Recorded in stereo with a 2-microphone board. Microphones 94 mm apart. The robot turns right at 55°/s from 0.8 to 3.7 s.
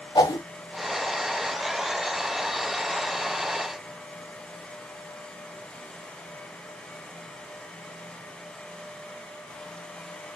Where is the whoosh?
50° left (ahead or behind), 0.7 m.